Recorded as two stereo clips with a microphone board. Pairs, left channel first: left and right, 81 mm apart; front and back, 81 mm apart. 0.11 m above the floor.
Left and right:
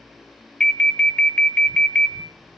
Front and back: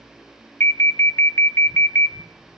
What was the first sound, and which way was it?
An alarm, 20° left.